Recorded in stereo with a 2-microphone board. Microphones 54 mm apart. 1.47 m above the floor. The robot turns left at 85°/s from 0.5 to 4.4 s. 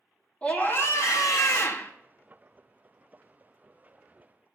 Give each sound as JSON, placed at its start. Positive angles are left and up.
{"t": 0.4, "sound": "a scream", "azimuth_deg": 155, "distance_m": 1.3}